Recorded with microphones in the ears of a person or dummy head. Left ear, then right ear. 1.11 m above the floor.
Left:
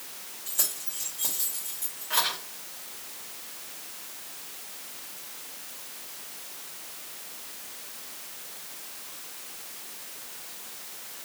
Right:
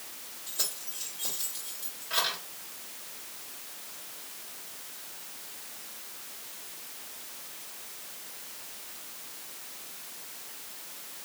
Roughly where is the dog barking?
No dog barking in this recording.